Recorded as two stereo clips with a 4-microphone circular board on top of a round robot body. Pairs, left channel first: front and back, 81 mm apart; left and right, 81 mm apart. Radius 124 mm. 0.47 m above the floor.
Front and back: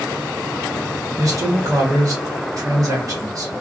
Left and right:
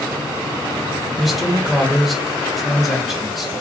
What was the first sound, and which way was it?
A man speaking, 175° right.